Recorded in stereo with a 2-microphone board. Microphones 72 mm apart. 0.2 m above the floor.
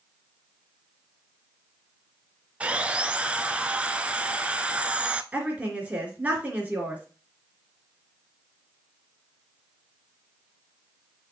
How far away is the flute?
I don't hear a flute.